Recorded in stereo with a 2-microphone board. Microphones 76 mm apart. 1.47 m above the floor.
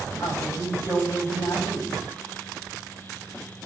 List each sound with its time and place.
0.2 s a woman speaking: 55° left (ahead or behind), 7.5 m